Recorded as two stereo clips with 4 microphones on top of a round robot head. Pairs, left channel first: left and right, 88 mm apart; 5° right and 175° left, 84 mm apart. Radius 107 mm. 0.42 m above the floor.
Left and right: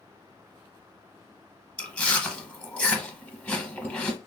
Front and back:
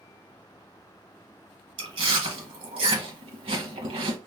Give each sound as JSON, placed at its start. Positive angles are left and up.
{"t": 1.8, "sound": "chewing", "azimuth_deg": 165, "distance_m": 0.7}